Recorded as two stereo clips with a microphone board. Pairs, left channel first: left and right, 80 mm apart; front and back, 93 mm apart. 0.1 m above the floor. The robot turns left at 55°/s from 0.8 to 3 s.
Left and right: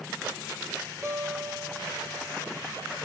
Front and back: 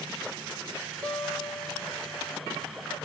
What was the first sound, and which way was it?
A guitar, 75° right.